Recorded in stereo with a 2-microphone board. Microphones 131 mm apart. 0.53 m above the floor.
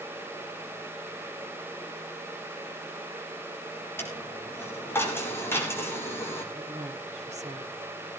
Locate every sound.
4.0 s a dropped coin: 15° left (ahead or behind), 5 m
6.5 s a woman speaking: 60° right (ahead or behind), 1.7 m